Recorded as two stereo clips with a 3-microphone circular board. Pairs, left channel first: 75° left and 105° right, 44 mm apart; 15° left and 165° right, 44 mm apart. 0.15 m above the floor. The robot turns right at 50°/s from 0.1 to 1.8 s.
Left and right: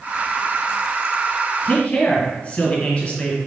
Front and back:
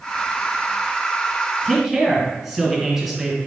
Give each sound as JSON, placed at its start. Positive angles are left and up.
{"t": 1.6, "sound": "a man speaking", "azimuth_deg": 105, "distance_m": 1.5}